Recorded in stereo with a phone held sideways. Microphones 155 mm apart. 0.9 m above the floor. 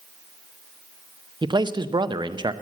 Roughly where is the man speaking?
Right.